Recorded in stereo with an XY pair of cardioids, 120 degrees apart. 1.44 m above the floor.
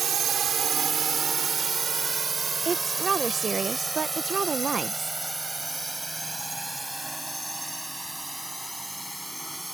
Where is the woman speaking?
35° right.